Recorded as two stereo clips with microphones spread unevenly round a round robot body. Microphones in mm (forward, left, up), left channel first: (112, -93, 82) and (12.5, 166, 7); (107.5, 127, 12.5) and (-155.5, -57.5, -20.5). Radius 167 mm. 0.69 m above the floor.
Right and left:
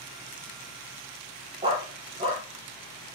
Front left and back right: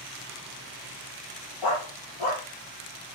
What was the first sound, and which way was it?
A dog barking, 40° left.